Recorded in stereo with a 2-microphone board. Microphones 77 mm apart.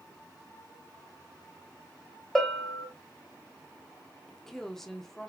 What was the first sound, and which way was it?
A bell, 5° left (ahead or behind).